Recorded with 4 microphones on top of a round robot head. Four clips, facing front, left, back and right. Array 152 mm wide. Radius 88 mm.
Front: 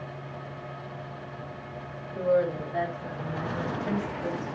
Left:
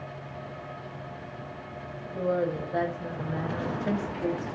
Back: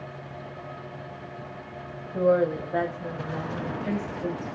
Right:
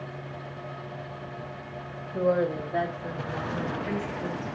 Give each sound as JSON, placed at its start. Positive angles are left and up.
{"t": 2.1, "sound": "a woman speaking", "azimuth_deg": -160, "distance_m": 1.4}